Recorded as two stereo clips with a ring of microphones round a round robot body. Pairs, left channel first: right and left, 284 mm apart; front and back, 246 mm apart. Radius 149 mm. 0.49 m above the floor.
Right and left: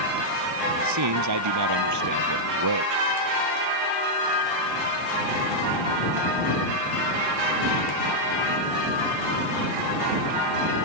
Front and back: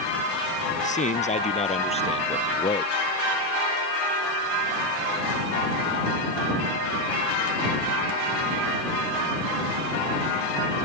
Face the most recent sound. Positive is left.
turn(degrees=70)